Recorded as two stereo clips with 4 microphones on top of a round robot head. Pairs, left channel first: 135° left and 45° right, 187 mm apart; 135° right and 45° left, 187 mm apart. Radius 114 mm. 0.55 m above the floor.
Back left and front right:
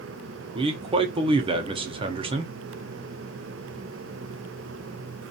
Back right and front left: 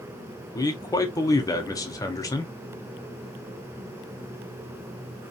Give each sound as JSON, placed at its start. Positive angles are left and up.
{"t": 0.6, "sound": "a man speaking", "azimuth_deg": -80, "distance_m": 0.8}